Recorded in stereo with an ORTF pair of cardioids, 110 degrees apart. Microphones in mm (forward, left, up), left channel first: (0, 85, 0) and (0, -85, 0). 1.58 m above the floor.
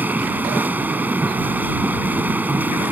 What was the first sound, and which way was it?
A machine running, 10° right.